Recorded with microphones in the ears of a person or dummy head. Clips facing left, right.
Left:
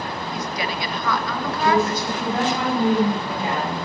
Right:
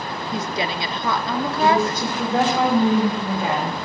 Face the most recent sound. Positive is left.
turn(degrees=-70)  # may be behind; listen again after turning